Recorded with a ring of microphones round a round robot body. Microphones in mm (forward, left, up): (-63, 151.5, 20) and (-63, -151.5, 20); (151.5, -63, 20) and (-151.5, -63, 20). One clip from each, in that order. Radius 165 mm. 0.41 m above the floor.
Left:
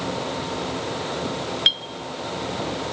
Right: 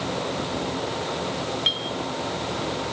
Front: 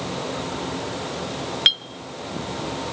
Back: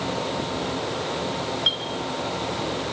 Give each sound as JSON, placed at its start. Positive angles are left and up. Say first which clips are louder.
{"t": 1.7, "sound": "a clink", "louder": "left 5 dB, front 6 dB", "azimuth_deg": 25, "distance_m": 0.7}